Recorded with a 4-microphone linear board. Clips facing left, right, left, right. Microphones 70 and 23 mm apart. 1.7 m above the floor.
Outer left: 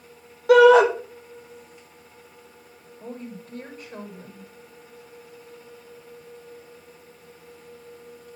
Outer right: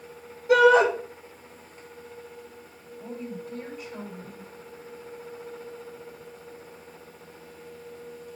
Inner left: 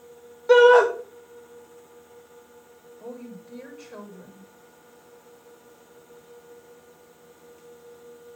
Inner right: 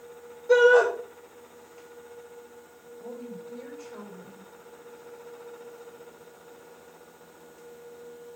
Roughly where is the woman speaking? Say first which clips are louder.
Outer right 1 dB, even; left.